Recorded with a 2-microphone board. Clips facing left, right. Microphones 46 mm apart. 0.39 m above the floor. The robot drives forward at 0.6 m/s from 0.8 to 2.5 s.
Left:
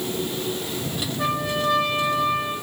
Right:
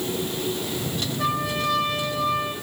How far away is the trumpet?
About 7.5 m.